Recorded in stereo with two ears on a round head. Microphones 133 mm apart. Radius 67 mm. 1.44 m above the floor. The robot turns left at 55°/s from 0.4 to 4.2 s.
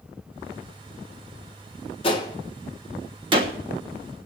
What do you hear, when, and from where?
2.0 s a gunshot: 35° left (ahead or behind), 1.2 m; by 3.5 s 45° right (ahead or behind), 1.2 m